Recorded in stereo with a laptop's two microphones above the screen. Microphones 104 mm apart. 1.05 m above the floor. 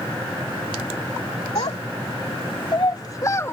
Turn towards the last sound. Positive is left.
turn(degrees=25)  # may be behind; listen again after turning